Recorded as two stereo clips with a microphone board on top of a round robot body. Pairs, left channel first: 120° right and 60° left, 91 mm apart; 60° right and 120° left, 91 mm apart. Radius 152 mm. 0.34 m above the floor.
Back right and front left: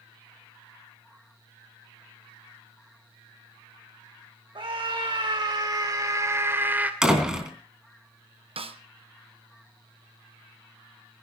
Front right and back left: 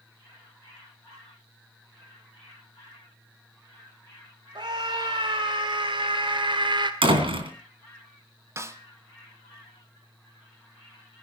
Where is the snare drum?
60° left, 1.6 m.